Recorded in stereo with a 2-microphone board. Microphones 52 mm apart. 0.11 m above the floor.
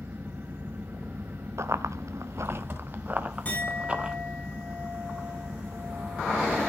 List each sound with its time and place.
0.0 s an engine running: 45° right (ahead or behind), 5 m
1.6 s running footsteps: 70° right (ahead or behind), 1.2 m; by 4.2 s 20° right (ahead or behind), 3 m
3.5 s a clink: 30° left (ahead or behind), 6 m